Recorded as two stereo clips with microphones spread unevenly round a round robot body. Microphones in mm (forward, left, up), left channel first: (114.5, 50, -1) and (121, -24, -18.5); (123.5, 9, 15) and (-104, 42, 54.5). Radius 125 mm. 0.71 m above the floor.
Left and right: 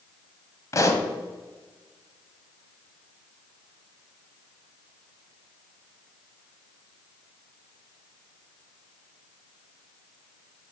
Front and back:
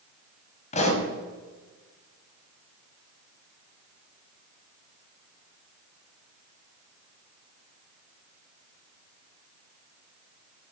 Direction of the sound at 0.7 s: 55° left.